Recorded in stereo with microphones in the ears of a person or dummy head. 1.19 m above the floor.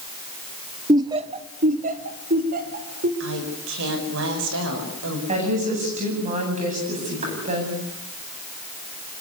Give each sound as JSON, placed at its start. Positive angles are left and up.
{"t": 0.9, "sound": "laughter", "side_deg": -15, "distance_m": 0.6}
{"t": 3.2, "sound": "a woman speaking", "side_deg": -70, "distance_m": 5.5}
{"t": 5.3, "sound": "a woman speaking", "side_deg": -35, "distance_m": 9.0}